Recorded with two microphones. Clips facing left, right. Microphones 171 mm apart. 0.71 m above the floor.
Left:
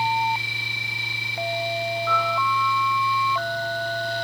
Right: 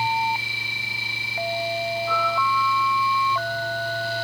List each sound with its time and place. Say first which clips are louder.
2.1 s a piano: even; 85° left, 5 m